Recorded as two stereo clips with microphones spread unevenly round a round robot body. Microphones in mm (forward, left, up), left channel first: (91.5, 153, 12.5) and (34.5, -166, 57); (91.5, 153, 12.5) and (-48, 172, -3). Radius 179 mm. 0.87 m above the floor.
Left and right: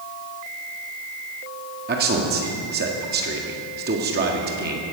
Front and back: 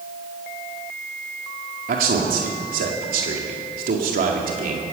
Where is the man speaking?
165° right, 1.9 m.